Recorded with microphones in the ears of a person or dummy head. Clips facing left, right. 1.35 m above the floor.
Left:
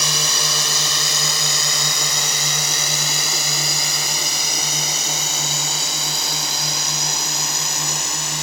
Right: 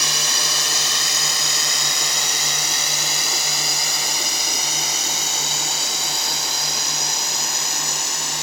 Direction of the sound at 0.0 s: 85° left.